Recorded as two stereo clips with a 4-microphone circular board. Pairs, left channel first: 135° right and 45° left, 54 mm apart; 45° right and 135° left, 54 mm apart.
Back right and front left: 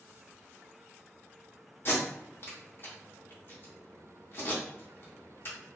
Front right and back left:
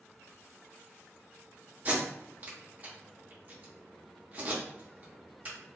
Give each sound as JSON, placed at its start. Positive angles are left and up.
{"t": 1.9, "sound": "tape being pulled", "azimuth_deg": -175, "distance_m": 0.9}